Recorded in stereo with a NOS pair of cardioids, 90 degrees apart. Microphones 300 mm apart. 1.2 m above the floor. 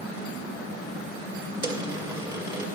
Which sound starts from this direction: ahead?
A dropped coin, at 1.6 s.